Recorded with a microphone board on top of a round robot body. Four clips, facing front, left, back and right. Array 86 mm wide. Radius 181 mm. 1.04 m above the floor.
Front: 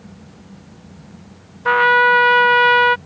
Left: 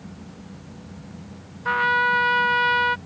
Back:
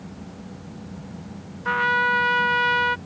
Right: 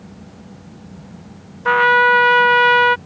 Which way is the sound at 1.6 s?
50° right.